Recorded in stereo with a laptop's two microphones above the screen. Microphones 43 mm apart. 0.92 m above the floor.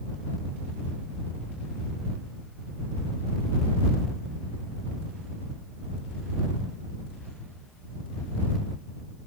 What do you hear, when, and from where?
Only background noise.